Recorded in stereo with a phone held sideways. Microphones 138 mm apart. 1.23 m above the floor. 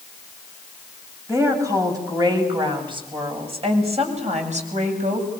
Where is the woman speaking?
20° right (ahead or behind), 7.5 m; by 5.3 s 60° right (ahead or behind), 7.5 m.